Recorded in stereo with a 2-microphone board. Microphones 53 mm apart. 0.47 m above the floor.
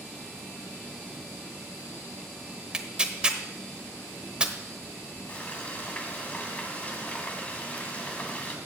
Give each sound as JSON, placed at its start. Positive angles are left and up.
{"t": 2.7, "sound": "tearing paper", "side_deg": -15, "distance_m": 0.9}
{"t": 5.3, "sound": "frying", "side_deg": 25, "distance_m": 1.6}